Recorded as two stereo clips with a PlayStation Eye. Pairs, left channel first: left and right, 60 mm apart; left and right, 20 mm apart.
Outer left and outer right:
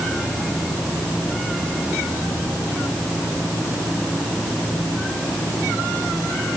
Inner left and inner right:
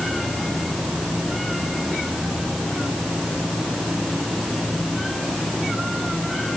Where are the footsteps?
No footsteps in this recording.